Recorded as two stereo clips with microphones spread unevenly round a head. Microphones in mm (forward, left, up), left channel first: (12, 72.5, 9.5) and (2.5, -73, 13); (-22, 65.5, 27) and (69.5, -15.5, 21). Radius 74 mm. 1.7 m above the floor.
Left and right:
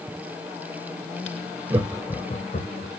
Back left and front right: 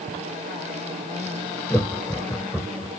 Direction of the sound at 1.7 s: 155° right.